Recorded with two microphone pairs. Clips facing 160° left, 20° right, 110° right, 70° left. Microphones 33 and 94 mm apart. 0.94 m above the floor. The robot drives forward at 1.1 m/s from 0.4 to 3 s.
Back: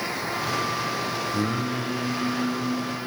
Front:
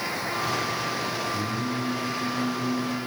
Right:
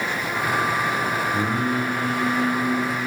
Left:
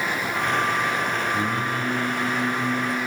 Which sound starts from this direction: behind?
Singing, at 1.3 s.